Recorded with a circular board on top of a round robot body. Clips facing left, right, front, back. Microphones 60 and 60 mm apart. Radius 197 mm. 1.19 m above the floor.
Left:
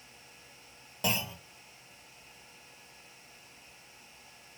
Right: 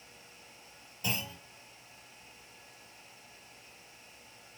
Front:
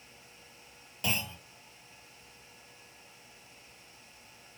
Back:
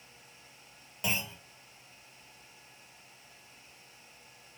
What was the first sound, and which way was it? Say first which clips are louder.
A clunk: left 4 dB, even; 100° left.